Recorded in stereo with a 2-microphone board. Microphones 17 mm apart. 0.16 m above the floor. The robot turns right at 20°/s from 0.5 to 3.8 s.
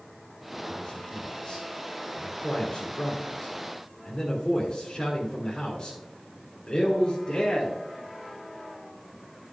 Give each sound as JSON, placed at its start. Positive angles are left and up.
{"t": 0.7, "sound": "a man speaking", "side_deg": 20, "distance_m": 2.0}